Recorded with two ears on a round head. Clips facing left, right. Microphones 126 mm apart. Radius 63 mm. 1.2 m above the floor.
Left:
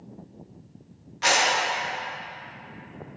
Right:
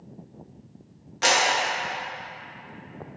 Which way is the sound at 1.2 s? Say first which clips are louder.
Right 1 dB; 60° right (ahead or behind).